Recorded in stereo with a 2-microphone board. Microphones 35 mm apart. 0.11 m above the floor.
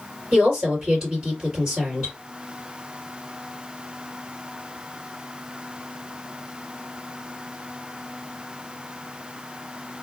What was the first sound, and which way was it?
A woman speaking, 30° right (ahead or behind).